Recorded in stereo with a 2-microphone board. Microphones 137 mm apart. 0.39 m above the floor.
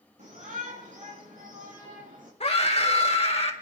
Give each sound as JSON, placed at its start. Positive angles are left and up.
{"t": 0.2, "sound": "a shout", "side_deg": -70, "distance_m": 4.0}
{"t": 2.4, "sound": "a scream", "side_deg": 50, "distance_m": 1.6}